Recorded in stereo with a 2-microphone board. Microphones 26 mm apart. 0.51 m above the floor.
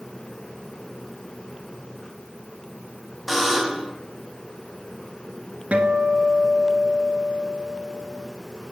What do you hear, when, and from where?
3.3 s a buzzer: 5° right (ahead or behind), 2.5 m
5.7 s a guitar: 60° right (ahead or behind), 1.4 m